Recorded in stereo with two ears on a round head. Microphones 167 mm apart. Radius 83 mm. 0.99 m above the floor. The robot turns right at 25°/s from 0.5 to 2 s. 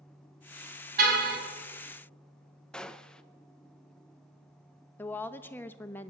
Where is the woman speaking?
10° left (ahead or behind), 0.8 m.